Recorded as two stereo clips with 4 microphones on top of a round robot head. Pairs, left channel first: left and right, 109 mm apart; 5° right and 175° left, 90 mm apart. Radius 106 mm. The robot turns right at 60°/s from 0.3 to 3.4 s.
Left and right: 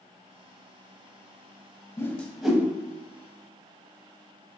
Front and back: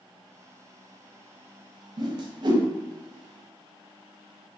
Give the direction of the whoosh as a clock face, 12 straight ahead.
7 o'clock.